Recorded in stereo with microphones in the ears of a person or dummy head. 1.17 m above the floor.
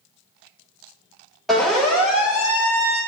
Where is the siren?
Centre (ahead or behind), 6.5 m; by 3.0 s 20° right (ahead or behind), 7.5 m.